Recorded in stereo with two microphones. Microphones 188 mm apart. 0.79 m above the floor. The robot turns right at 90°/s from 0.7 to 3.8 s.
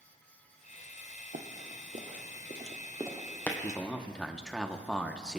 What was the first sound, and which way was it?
Running footsteps, 60° right (ahead or behind).